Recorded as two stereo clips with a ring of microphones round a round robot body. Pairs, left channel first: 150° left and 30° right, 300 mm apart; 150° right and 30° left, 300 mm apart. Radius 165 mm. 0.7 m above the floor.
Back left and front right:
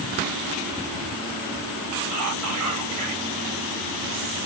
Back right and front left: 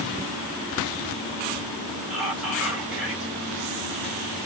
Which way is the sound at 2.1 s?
60° right.